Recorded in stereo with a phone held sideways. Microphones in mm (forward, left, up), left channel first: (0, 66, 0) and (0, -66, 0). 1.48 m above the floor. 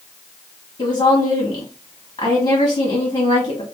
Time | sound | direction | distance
0.8 | a woman speaking | 40° left (ahead or behind) | 1.3 m